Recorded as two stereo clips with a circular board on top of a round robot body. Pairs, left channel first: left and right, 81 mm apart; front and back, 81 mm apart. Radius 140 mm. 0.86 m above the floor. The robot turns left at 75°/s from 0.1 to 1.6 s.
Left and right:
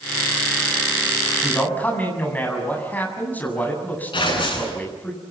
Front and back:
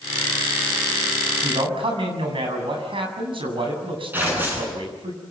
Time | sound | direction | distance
1.4 | a man speaking | 175° left | 7.5 m
4.1 | tearing paper | 110° left | 10 m